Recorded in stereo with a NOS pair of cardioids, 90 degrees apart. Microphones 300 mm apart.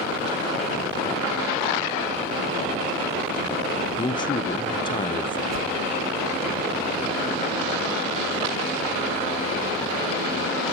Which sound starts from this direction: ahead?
A man speaking, at 4.0 s.